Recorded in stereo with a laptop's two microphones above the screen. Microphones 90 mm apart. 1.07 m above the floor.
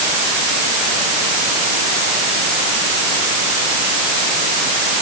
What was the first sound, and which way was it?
Only background noise.